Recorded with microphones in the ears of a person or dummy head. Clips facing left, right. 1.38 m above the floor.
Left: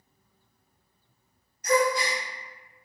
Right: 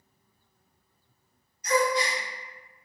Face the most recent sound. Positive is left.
turn(degrees=50)  # may be behind; listen again after turning